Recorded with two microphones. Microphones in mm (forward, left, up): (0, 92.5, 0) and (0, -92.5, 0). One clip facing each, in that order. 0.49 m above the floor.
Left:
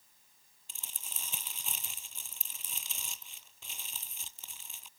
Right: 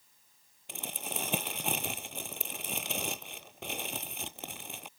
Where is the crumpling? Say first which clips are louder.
Right 17 dB; 85° right.